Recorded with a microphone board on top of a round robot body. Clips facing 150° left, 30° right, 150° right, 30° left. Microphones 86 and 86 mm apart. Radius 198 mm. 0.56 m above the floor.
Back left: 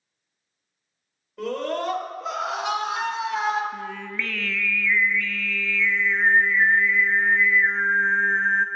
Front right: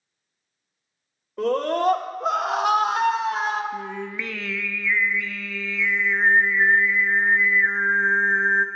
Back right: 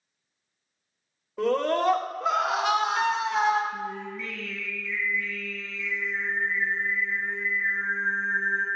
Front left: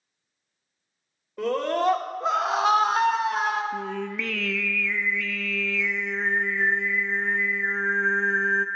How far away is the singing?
About 0.6 m.